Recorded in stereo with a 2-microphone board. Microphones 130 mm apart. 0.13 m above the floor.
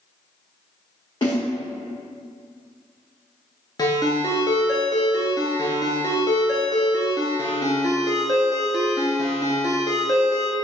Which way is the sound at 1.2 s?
35° left (ahead or behind).